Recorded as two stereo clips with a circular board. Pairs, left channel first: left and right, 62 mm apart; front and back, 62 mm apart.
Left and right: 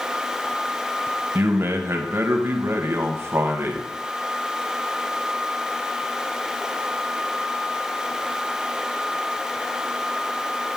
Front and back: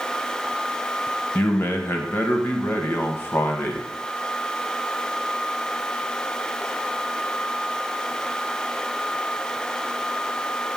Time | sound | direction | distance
1.4 | a man speaking | 50° right | 0.9 m